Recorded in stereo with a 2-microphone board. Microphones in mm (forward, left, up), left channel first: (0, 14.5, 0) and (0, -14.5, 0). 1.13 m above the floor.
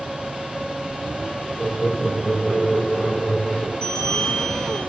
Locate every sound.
1.6 s laughter: 15° left (ahead or behind), 8 m; by 3.7 s 35° left (ahead or behind), 9 m
3.8 s a bell: 30° left (ahead or behind), 7 m